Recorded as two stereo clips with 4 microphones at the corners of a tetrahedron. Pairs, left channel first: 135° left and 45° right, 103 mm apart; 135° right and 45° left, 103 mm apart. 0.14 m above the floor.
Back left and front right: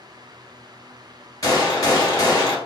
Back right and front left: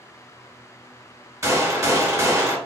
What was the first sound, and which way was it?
A gunshot, 95° left.